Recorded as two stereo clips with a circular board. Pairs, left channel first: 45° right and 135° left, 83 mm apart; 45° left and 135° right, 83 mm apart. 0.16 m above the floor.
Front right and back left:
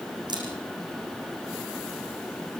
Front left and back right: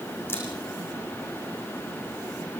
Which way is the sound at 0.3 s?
105° left.